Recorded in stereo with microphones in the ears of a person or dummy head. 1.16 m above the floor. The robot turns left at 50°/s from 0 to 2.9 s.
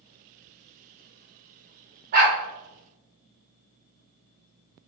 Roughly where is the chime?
I don't hear a chime.